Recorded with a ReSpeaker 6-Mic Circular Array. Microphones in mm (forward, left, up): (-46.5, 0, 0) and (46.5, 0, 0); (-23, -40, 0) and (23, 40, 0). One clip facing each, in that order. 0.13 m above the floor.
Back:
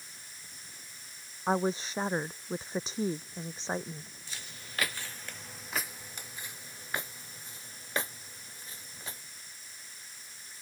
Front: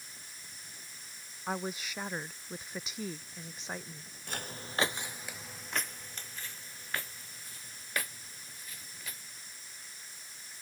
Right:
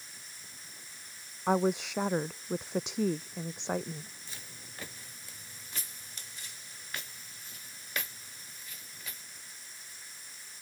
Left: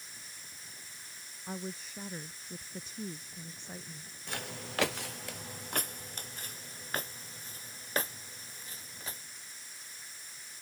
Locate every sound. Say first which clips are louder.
1.5 s a woman speaking: back 8 dB, right 14 dB; 120° right
4.3 s footsteps: front 11 dB, left 10 dB; 35° left; by 9.2 s 120° left